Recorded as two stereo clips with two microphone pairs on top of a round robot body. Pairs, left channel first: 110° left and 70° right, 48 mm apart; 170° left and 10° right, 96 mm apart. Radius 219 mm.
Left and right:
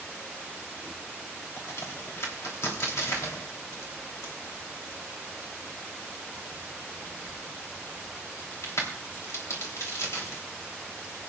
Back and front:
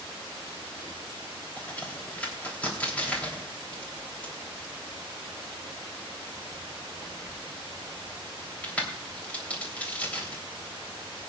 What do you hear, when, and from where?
1.6 s a crack: 95° left, 3 m